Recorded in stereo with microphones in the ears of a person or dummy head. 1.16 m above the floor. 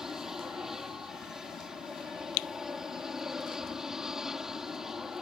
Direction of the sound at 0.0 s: 5° right (ahead or behind).